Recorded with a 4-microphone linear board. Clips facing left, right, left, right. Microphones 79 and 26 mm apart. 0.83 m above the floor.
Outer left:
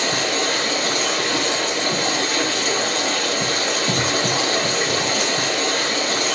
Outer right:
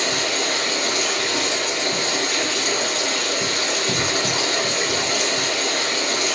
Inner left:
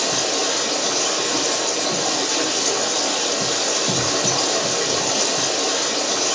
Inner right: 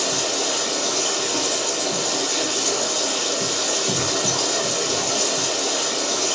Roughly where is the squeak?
I don't hear a squeak.